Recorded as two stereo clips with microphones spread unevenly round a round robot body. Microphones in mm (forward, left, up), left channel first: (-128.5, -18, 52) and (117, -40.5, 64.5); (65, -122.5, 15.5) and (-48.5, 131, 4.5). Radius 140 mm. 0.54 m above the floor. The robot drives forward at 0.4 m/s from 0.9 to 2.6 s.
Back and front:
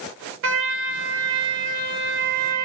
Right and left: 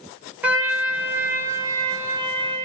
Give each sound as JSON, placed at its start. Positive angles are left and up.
{"t": 0.4, "sound": "a trumpet", "azimuth_deg": 30, "distance_m": 1.8}